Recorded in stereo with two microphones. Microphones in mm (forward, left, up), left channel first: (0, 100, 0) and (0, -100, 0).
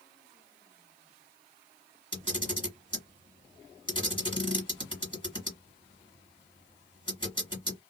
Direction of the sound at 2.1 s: 25° left (ahead or behind).